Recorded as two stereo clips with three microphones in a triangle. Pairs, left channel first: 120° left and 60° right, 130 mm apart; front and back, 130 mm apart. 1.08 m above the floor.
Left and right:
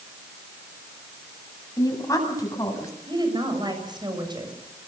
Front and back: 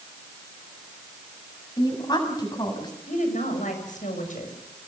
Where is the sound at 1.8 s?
55° left, 7.5 m.